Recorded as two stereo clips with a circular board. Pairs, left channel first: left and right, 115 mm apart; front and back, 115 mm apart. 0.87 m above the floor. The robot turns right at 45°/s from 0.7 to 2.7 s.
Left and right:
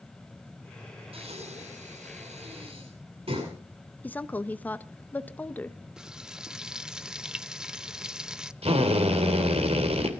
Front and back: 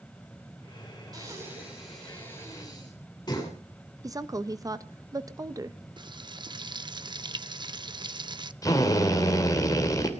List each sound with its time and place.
1.1 s breathing: 125° right, 7.5 m; by 3.5 s 55° right, 7.5 m
4.0 s a woman speaking: 155° left, 0.8 m
6.0 s frying: 170° right, 0.6 m
8.6 s a drill: 60° right, 2.5 m